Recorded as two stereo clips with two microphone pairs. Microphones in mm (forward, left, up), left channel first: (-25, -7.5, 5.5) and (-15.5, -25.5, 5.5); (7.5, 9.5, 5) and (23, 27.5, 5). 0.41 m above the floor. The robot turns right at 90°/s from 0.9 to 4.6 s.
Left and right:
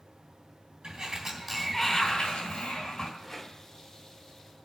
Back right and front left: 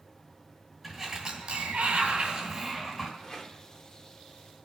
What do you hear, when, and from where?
0.8 s a sliding door: 25° right, 3 m; by 3.1 s 170° left, 3 m
3.2 s a rattle: 160° right, 1.3 m; by 3.6 s 125° right, 1.3 m